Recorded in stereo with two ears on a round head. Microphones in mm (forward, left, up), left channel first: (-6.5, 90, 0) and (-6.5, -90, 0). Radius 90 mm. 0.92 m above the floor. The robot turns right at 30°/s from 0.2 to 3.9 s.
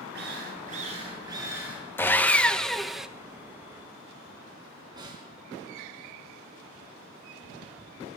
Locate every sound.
0.1 s a drill: 55° right, 7 m; by 1.8 s 5° right, 7 m
2.0 s sawing: 10° left (ahead or behind), 0.8 m; by 3.1 s 5° right (ahead or behind), 0.8 m
5.0 s a snare drum: 20° right (ahead or behind), 4 m